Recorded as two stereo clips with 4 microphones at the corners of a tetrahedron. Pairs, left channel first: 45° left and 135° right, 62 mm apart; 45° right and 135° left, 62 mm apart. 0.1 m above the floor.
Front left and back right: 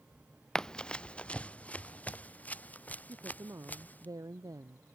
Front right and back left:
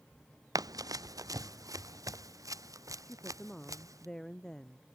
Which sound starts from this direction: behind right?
A woman speaking, at 3.0 s.